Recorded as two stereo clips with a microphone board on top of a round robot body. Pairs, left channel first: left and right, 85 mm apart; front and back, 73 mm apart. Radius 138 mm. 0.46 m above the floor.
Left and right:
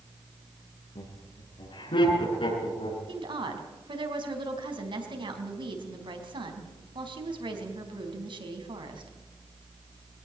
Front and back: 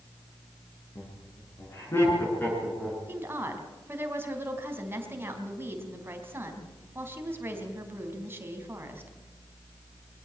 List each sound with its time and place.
0.9 s laughter: 55° left, 7 m; by 3.0 s 70° left, 7 m
3.1 s a woman speaking: 120° right, 4 m